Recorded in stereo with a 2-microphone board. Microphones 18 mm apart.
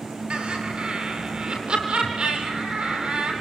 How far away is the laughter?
About 8.5 m.